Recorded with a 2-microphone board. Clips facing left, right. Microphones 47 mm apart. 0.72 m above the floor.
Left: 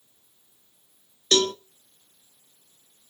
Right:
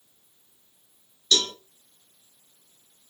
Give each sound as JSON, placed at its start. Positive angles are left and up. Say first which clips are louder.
{"t": 1.3, "sound": "a cowbell", "louder": "left 4 dB", "side_deg": 45, "distance_m": 1.6}